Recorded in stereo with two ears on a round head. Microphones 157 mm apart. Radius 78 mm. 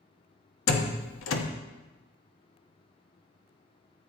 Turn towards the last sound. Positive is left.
turn(degrees=80)